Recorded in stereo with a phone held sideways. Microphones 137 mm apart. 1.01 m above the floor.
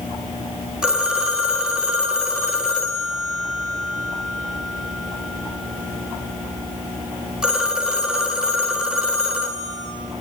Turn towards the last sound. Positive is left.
turn(degrees=-5)  # may be behind; listen again after turning